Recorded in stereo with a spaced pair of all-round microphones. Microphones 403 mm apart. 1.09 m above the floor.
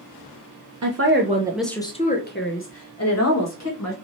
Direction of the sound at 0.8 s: 45° right (ahead or behind).